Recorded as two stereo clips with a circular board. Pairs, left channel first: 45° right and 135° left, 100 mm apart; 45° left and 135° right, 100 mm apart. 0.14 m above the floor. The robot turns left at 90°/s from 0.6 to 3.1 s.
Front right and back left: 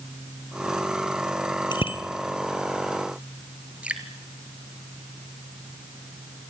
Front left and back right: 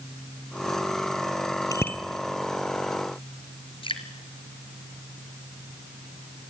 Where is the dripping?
60° left, 2.5 m.